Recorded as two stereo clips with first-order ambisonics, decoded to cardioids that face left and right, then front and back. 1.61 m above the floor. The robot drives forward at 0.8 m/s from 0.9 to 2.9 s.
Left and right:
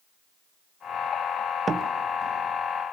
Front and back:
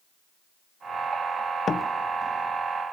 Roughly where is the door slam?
Ahead right.